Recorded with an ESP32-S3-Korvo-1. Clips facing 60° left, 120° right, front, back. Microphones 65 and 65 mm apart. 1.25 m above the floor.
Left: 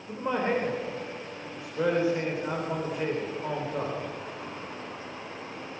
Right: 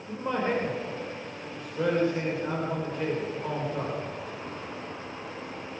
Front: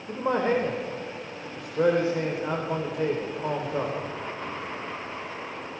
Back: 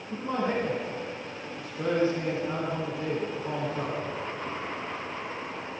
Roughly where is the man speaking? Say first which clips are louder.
Left 1 dB, front 5 dB; ahead.